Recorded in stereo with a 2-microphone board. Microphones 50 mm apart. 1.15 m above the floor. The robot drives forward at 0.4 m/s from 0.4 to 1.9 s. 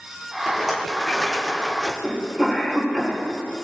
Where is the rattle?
Centre (ahead or behind), 1.5 m; by 1.9 s 5° right (ahead or behind), 1.0 m.